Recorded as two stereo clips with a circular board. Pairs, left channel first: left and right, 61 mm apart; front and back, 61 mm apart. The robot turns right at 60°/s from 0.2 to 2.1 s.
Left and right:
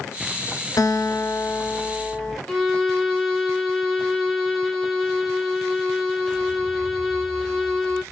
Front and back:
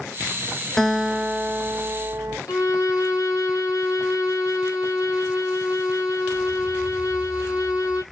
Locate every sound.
0.8 s a guitar: 80° left, 0.7 m; by 2.4 s 160° left, 0.7 m
2.5 s a violin: 10° left, 1.8 m